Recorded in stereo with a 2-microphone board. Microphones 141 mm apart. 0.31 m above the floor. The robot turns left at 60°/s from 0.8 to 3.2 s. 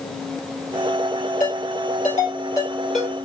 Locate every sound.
1.4 s a ringtone: 85° left, 2.5 m; by 3.1 s 15° right (ahead or behind), 2.5 m